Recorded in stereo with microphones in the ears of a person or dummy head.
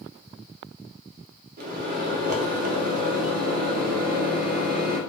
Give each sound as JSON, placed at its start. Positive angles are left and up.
{"t": 1.6, "sound": "a microwave", "side_deg": -55, "distance_m": 0.5}